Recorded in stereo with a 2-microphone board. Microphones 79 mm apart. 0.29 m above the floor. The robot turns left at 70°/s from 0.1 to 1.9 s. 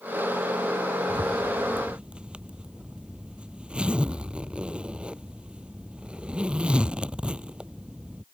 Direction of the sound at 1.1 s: 110° right.